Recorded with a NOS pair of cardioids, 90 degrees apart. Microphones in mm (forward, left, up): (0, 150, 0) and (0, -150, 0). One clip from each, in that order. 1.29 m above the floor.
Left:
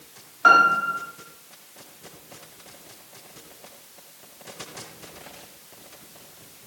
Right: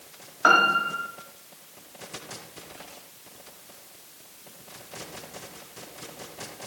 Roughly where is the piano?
Ahead.